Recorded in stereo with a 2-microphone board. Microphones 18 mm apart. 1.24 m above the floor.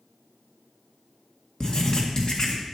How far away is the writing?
About 1.7 m.